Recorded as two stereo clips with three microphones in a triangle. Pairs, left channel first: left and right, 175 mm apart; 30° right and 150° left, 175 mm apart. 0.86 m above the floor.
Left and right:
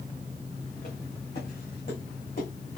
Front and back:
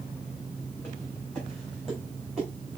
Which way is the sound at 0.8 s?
50° left.